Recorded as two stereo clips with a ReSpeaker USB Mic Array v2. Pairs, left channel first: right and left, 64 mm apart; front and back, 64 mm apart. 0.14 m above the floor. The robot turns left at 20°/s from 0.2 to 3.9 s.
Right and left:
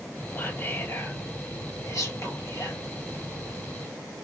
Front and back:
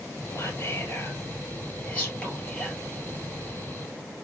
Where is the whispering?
35° right, 3.5 m; by 2.8 s 80° right, 3.5 m.